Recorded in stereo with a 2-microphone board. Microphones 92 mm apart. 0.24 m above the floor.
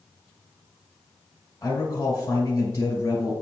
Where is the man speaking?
25° left (ahead or behind), 1.4 m.